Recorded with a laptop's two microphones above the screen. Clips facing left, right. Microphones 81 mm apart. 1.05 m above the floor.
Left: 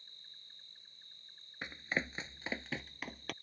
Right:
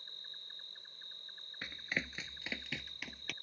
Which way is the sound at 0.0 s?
65° right (ahead or behind).